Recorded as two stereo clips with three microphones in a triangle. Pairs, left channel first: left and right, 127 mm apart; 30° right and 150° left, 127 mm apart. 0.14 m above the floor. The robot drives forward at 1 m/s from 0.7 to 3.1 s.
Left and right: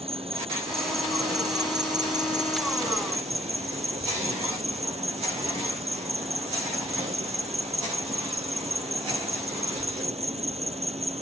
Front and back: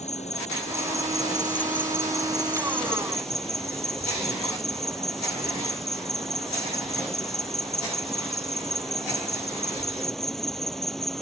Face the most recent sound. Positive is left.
turn(degrees=-120)